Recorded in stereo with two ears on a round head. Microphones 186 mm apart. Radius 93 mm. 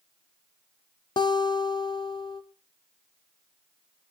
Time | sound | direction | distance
1.2 | a guitar | 20° left (ahead or behind) | 0.7 m